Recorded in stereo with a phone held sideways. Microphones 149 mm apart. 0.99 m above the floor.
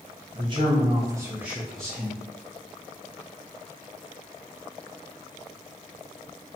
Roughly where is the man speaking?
Right.